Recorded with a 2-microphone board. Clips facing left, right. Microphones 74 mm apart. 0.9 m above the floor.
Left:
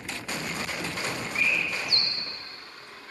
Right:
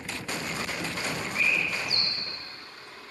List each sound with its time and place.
1.4 s a bird: 65° left (ahead or behind), 0.7 m